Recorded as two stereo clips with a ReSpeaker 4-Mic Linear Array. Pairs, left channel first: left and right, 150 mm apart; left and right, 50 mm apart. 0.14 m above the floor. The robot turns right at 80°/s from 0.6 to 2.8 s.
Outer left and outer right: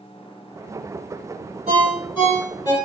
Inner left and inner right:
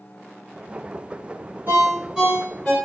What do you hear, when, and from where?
1.7 s a ringtone: 50° right, 1.8 m; by 2.7 s 35° left, 1.8 m